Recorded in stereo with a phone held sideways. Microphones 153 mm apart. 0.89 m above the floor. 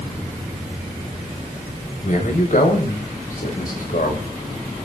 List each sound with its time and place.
2.0 s a man speaking: 60° left (ahead or behind), 5 m; by 4.3 s 70° left (ahead or behind), 4.5 m